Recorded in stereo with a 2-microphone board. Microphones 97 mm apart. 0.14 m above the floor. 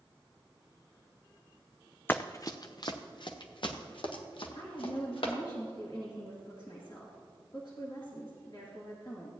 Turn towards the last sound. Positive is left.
turn(degrees=55)  # may be behind; listen again after turning